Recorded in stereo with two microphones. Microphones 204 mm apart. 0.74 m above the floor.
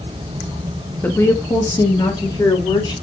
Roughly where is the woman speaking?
Centre.